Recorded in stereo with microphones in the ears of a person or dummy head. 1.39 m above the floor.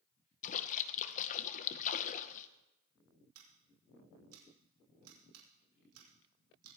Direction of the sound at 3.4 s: 85° right.